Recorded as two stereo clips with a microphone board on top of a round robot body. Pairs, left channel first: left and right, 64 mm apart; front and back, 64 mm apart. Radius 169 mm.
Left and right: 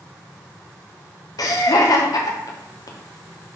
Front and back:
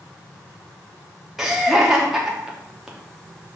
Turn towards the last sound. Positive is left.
turn(degrees=95)